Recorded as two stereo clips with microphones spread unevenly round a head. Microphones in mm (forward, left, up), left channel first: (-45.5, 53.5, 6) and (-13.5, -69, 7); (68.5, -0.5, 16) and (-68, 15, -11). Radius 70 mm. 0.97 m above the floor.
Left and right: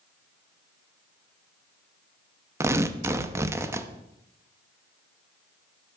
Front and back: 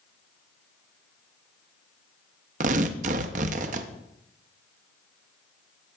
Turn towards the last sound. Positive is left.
turn(degrees=-145)